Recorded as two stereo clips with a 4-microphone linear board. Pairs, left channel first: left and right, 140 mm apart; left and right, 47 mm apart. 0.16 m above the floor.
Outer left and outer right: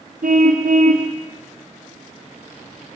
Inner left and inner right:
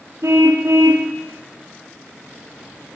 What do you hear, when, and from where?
0.2 s a car horn: 75° right (ahead or behind), 3 m